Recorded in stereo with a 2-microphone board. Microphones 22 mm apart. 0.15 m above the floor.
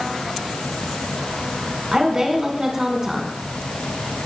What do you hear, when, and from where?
1.9 s a woman speaking: 25° right (ahead or behind), 1.2 m